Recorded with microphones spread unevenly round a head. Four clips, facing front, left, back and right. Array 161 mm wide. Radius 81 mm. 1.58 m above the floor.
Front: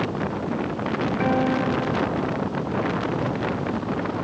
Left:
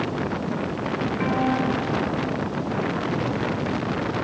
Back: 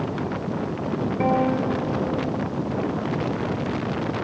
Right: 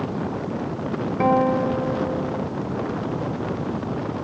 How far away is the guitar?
About 3.5 m.